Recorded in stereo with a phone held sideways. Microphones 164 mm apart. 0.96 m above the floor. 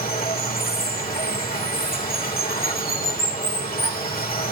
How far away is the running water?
About 2 m.